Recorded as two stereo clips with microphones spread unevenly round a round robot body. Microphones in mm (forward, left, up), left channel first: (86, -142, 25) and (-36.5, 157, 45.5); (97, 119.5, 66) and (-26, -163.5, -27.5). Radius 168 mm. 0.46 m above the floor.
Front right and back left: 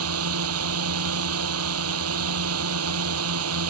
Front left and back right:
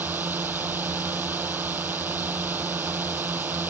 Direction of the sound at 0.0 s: 160° left.